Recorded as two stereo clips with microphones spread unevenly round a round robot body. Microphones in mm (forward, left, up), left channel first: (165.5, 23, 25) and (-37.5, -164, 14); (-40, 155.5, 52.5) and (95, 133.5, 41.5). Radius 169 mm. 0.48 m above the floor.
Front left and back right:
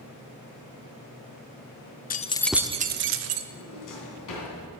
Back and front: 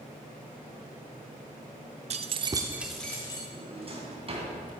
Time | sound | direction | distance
2.1 | keys jangling | 15° right | 0.6 m
3.5 | a drawer | 35° left | 3 m